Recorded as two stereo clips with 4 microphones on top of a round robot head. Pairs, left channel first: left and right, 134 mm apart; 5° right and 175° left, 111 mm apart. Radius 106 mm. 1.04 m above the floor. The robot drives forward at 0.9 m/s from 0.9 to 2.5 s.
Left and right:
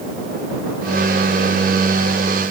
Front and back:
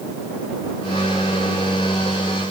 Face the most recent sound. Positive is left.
No sound to turn to.